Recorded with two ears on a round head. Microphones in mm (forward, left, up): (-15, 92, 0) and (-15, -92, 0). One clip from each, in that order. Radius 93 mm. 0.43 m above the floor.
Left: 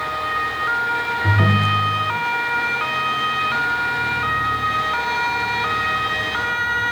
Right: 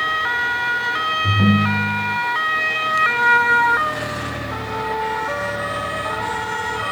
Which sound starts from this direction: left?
A ringtone, at 1.2 s.